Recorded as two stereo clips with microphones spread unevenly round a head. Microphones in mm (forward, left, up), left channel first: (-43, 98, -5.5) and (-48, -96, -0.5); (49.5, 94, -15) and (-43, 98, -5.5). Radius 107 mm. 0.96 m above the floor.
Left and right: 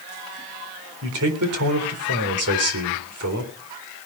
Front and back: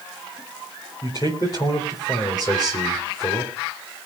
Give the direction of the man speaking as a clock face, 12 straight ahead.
2 o'clock.